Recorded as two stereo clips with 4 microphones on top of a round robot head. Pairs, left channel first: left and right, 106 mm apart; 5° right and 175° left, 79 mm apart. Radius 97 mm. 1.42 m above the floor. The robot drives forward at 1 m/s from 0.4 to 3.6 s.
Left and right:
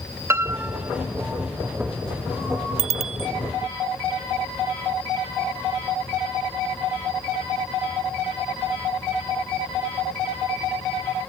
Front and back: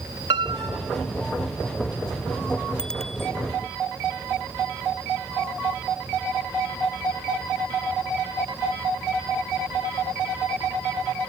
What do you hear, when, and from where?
0.3 s a piano: 155° right; by 1.0 s 160° right
2.8 s a bicycle bell: 85° right; by 3.3 s 95° right